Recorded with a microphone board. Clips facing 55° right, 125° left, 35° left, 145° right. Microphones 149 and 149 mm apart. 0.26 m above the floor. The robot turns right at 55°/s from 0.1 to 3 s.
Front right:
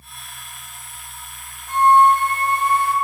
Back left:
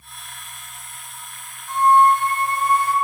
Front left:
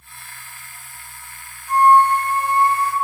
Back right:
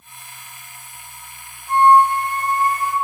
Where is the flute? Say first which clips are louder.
Front right 1 dB, even; 85° right, 1.0 m; by 2.9 s 15° right, 1.0 m.